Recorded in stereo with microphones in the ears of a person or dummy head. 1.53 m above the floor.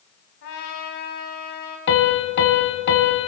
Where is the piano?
55° left (ahead or behind), 2 m.